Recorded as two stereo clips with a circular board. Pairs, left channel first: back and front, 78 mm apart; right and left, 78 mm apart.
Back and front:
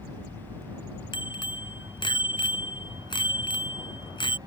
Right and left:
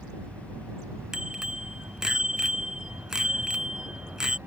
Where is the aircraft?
30° left.